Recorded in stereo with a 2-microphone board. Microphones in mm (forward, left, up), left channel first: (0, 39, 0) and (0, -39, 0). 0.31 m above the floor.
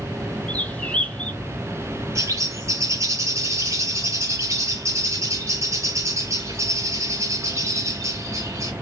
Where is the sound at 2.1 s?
40° right (ahead or behind), 2 m.